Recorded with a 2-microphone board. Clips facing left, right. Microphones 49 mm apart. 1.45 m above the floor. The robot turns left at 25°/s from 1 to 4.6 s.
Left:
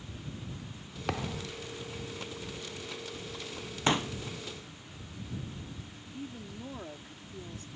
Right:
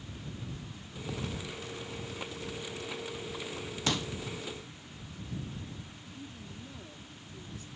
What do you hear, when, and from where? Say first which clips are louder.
1.1 s a thud: left 4 dB; 75° left (ahead or behind); by 1.5 s 85° left
3.9 s a pop: left 5 dB; 30° left (ahead or behind); by 4.1 s 35° left (ahead or behind)
6.1 s a woman speaking: left 5 dB; 50° left (ahead or behind)